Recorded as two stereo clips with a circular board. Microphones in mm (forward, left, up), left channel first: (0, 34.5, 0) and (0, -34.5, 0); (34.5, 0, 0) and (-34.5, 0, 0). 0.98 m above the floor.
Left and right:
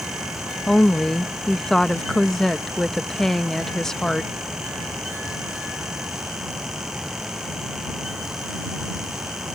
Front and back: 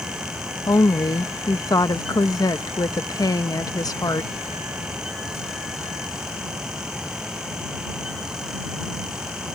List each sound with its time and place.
0.7 s a woman speaking: 5° left